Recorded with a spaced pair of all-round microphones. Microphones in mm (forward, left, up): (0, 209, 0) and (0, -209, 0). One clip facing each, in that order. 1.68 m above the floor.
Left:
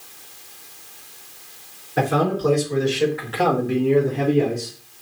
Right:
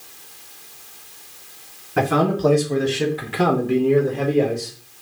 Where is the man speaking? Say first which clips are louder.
Right 2 dB; 80° right, 1.9 m; by 4.7 s 35° left (ahead or behind), 1.5 m.